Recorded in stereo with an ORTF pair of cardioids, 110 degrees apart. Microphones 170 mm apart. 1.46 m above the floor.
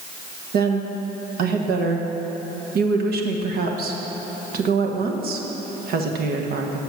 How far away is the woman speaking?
About 1.5 m.